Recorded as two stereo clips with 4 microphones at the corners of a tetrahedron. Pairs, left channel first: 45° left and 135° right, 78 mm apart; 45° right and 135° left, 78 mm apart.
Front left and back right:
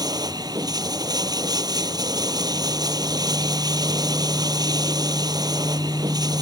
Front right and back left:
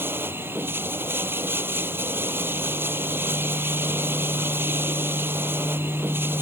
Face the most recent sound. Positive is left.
turn(degrees=-165)